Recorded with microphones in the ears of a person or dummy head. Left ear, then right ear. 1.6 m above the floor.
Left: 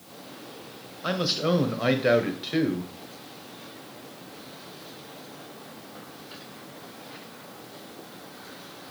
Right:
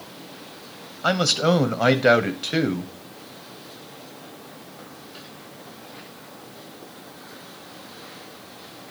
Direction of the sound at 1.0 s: 25° right (ahead or behind).